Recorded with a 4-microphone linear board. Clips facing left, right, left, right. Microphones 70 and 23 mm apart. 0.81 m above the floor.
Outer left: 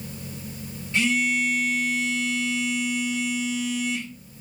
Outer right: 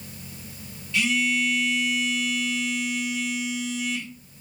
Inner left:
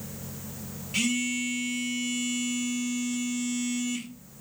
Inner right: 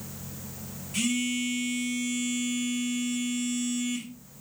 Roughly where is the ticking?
I don't hear ticking.